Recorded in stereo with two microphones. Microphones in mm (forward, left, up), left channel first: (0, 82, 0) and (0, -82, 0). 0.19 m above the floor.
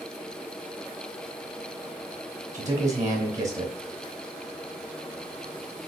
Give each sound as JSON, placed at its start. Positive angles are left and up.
{"t": 2.5, "sound": "a man speaking", "side_deg": -20, "distance_m": 1.3}